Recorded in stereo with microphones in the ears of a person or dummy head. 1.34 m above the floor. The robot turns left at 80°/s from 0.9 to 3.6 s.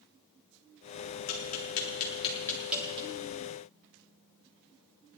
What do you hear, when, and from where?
1.3 s tapping: 70° left (ahead or behind), 4 m; by 3.1 s 35° right (ahead or behind), 4 m